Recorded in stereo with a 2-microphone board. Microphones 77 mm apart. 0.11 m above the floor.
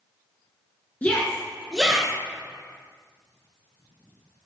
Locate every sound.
1.0 s a shout: 25° left (ahead or behind), 1.6 m; by 2.1 s 10° right (ahead or behind), 1.5 m